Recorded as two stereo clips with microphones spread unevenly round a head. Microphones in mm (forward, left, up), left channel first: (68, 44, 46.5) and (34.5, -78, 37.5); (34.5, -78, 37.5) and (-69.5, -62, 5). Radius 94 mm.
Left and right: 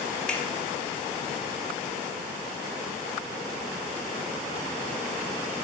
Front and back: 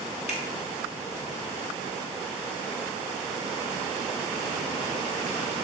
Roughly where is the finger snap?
Ahead.